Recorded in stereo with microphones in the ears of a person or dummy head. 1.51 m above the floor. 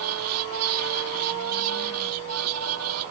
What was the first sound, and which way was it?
A fan, 90° right.